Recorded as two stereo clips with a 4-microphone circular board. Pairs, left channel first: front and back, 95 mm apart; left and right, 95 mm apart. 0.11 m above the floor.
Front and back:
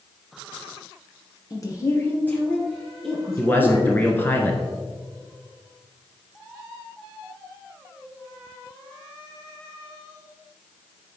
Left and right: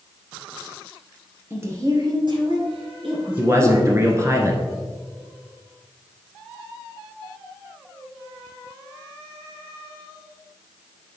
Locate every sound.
1.5 s a woman speaking: 30° right, 1.8 m; by 4.3 s 100° right, 4.5 m
3.4 s a man speaking: 55° right, 1.3 m